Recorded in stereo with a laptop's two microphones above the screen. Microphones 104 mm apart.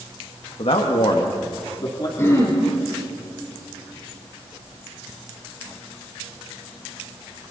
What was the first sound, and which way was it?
A man speaking, 65° left (ahead or behind).